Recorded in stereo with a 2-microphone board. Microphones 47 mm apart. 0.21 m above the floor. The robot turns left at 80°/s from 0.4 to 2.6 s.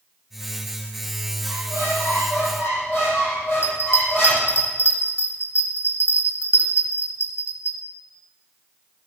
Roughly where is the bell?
Left.